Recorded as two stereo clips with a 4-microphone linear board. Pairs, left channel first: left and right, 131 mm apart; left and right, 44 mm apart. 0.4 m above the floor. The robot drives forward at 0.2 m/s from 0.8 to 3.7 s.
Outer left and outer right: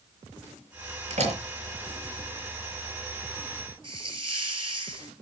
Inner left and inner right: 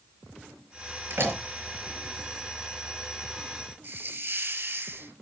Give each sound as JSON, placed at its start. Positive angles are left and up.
{"t": 1.1, "sound": "a door slam", "side_deg": -60, "distance_m": 4.0}
{"t": 3.8, "sound": "a hiss", "side_deg": -45, "distance_m": 2.0}